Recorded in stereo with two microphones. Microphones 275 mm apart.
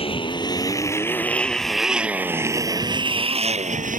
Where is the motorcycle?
20° left (ahead or behind); by 4.0 s 30° right (ahead or behind).